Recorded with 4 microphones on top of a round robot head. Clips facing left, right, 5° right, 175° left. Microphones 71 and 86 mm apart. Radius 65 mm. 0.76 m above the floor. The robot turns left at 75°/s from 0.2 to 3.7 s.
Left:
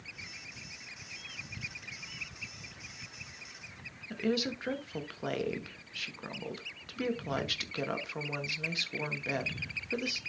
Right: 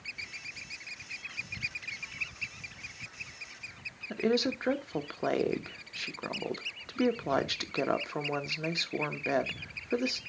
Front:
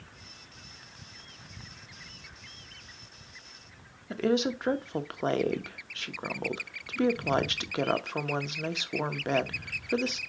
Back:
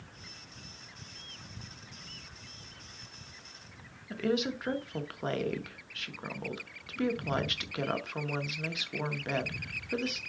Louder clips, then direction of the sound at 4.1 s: Right 4 dB, front 4 dB; 45° right.